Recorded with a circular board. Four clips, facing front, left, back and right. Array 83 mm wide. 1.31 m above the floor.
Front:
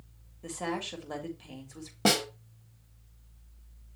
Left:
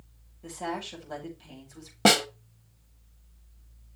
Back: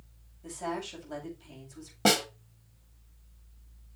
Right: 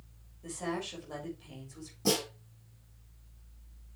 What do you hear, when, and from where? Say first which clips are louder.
0.4 s a woman speaking: left 2 dB, front 1 dB; 10° left, 6.5 m
2.0 s a snare drum: left 9 dB, back 1 dB; 95° left, 1.5 m